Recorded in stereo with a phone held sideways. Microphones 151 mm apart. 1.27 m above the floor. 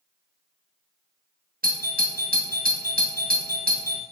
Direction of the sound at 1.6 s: 75° right (ahead or behind).